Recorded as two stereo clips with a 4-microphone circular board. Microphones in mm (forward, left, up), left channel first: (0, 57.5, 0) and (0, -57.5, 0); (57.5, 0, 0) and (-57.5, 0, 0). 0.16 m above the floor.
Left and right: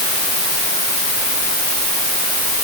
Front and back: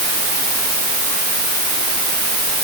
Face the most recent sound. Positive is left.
No sound to turn to.